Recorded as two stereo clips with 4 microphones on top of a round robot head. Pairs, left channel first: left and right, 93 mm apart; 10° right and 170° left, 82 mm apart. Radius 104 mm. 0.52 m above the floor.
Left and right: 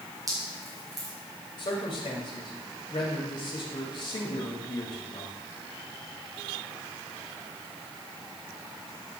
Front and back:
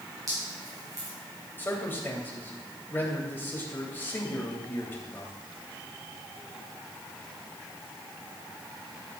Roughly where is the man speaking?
Ahead left.